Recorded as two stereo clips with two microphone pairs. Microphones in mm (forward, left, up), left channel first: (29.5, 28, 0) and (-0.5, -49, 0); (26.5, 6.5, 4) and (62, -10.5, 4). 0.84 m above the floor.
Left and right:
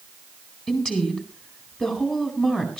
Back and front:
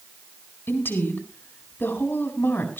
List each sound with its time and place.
0.7 s a woman speaking: 150° left, 4.5 m